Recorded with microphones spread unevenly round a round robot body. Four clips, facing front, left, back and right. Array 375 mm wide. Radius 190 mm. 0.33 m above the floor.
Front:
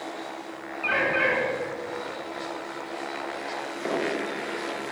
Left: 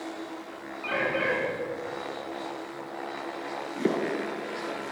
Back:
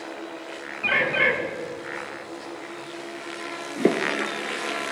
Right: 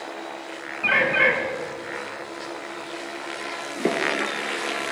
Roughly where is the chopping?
Behind.